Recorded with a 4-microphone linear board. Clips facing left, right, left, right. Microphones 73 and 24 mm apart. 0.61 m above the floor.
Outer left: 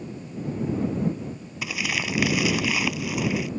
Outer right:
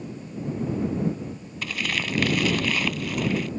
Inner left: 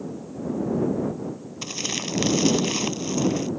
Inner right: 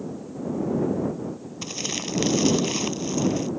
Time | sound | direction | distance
1.6 | crumpling | 10° left (ahead or behind) | ?